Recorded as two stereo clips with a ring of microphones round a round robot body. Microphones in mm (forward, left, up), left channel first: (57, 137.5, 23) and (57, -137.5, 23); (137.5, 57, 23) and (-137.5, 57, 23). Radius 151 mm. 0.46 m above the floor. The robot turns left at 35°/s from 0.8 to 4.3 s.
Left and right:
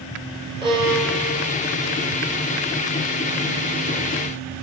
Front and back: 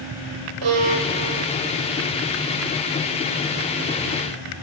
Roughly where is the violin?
Behind.